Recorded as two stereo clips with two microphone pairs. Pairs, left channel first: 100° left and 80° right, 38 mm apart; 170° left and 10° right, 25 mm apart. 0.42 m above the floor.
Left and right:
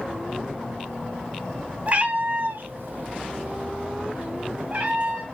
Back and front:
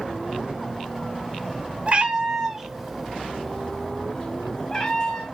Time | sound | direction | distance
1.9 | a cat meowing | 25° right | 0.7 m